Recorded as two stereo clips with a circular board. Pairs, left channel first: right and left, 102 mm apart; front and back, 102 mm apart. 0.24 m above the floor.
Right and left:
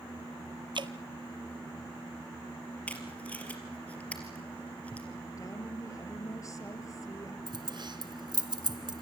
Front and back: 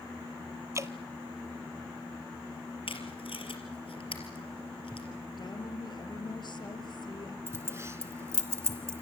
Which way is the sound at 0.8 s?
120° left.